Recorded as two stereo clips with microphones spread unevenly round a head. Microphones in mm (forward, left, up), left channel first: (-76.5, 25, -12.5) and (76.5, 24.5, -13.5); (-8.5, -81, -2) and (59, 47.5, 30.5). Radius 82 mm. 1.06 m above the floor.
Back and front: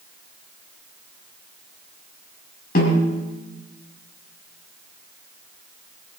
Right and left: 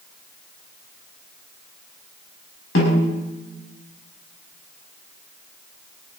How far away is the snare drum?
About 6 m.